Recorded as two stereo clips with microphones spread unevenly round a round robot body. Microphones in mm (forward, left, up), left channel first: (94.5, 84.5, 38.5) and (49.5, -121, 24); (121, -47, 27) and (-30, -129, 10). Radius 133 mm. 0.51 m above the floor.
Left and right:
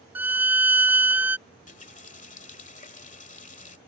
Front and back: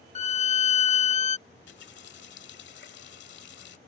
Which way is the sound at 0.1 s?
25° right.